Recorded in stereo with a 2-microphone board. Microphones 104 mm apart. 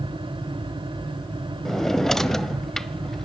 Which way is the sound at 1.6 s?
5° left (ahead or behind).